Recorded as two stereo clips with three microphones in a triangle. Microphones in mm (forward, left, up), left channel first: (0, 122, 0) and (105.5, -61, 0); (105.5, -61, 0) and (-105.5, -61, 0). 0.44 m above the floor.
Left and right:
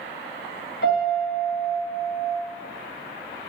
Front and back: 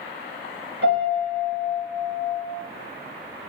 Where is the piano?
150° left, 0.7 m.